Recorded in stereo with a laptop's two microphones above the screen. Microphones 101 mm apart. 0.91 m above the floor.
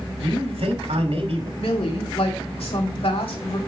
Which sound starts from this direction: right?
A man speaking, at 0.2 s.